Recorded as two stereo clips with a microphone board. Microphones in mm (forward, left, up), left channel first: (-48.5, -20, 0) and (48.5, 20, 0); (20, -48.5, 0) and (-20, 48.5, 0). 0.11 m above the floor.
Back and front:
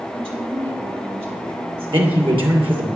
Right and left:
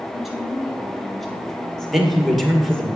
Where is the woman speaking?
25° left, 3.5 m; by 2.9 s 10° left, 2.5 m.